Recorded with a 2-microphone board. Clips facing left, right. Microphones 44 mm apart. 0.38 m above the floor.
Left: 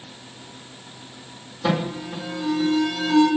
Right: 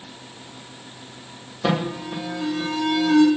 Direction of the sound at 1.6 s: 35° right (ahead or behind).